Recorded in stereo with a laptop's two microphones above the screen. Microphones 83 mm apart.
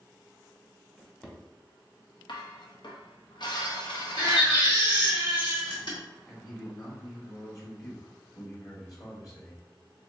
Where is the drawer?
20° left (ahead or behind), 1.1 m.